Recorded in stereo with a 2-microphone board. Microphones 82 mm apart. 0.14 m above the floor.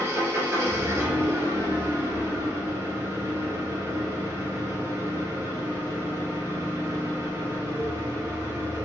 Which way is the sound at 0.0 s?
30° right (ahead or behind).